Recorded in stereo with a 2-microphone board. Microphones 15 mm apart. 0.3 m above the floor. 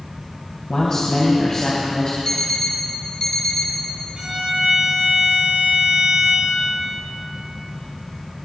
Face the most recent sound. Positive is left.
turn(degrees=-55)  # may be behind; listen again after turning